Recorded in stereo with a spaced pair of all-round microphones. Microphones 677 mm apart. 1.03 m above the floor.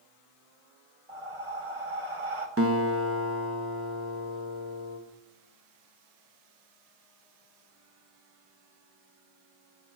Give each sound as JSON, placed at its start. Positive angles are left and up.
{"t": 1.1, "sound": "breathing", "side_deg": -50, "distance_m": 1.2}
{"t": 2.6, "sound": "a guitar", "side_deg": -20, "distance_m": 1.1}